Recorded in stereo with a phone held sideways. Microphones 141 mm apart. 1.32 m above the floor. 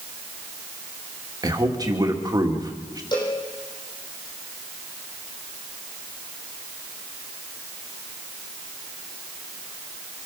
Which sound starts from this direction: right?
A man speaking, at 1.4 s.